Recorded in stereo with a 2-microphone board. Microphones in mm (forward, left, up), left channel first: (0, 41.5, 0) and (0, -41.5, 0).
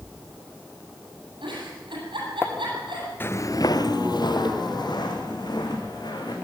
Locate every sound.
1.4 s a giggle: 80° right, 9 m
3.2 s footsteps: 25° left (ahead or behind), 0.7 m; by 6.3 s 60° left (ahead or behind), 4 m